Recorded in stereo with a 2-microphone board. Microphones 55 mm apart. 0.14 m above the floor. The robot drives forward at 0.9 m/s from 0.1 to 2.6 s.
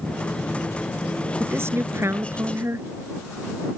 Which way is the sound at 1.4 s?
50° right (ahead or behind).